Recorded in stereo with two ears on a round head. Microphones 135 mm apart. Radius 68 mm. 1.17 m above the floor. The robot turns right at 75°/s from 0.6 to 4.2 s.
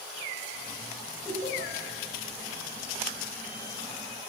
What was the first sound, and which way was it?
Laughter, 25° left (ahead or behind).